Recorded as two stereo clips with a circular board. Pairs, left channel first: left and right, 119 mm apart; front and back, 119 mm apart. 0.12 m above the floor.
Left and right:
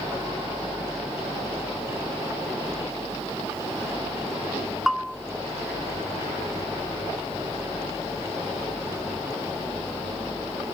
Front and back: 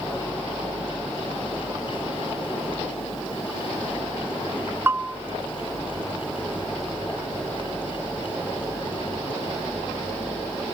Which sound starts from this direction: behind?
A bell, at 4.9 s.